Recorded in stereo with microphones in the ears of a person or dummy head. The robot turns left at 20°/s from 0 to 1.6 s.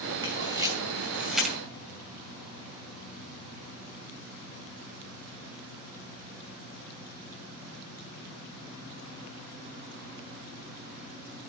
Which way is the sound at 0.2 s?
20° right (ahead or behind).